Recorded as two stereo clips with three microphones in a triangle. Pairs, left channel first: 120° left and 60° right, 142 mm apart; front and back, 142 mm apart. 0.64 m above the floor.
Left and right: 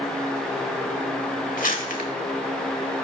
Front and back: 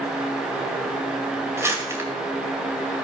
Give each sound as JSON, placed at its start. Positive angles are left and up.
{"t": 1.6, "sound": "crumpling", "azimuth_deg": 110, "distance_m": 2.0}